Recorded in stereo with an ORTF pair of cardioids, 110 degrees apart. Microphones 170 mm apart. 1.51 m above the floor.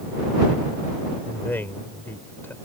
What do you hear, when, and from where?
1.2 s a man speaking: 10° left